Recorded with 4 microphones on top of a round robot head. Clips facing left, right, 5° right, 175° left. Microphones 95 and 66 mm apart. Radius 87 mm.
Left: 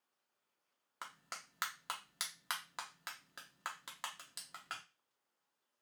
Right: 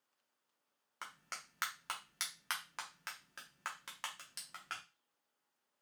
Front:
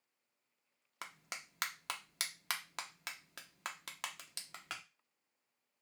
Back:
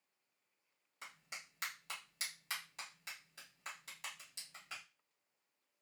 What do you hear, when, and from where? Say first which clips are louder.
1.0 s a clap: even, front 4 dB; 10° left, 0.6 m